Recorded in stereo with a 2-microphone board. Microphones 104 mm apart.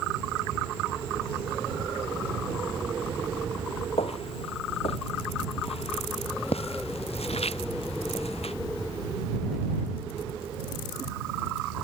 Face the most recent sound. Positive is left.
turn(degrees=75)  # may be behind; listen again after turning